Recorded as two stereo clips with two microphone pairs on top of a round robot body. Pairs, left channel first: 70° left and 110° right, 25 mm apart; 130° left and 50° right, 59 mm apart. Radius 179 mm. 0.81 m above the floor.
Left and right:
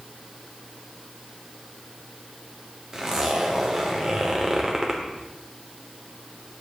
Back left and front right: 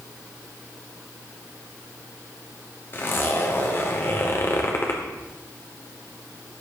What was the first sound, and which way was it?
A zipper, 175° right.